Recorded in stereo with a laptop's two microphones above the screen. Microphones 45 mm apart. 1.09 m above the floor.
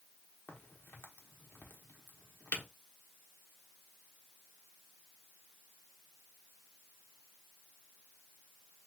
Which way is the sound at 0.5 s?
45° left (ahead or behind).